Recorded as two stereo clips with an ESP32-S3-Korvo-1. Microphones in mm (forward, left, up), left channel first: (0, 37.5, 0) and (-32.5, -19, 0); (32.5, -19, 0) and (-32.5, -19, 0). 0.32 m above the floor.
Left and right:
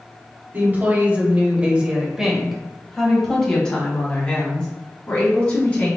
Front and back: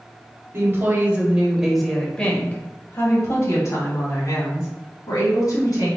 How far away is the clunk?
No clunk in this recording.